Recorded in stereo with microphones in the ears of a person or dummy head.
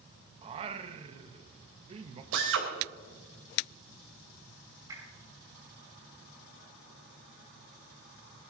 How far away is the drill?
About 3.5 m.